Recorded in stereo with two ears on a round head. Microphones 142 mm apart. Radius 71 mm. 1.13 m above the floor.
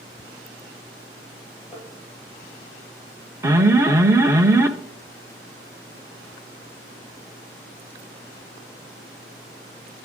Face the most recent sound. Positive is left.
turn(degrees=-15)  # may be behind; listen again after turning